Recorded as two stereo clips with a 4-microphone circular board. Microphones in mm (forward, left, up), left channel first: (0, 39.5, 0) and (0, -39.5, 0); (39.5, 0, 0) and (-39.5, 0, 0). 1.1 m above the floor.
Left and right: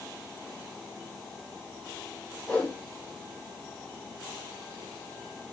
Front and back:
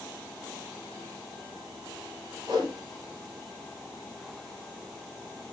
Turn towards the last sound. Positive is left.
turn(degrees=165)